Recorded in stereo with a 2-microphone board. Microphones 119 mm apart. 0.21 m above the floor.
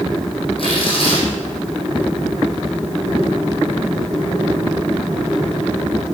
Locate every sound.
0.6 s tearing paper: 50° left (ahead or behind), 3 m